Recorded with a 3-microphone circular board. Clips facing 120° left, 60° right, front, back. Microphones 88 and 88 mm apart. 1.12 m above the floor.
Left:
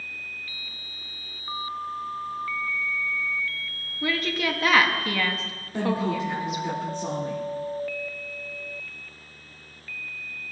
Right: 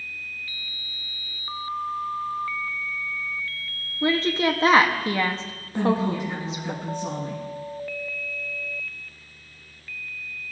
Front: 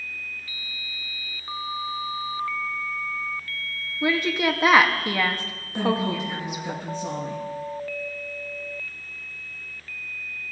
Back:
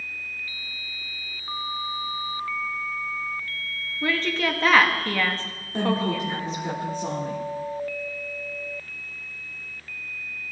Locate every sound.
4.0 s a woman speaking: 60° right, 0.6 m
5.7 s a woman speaking: 145° left, 2.5 m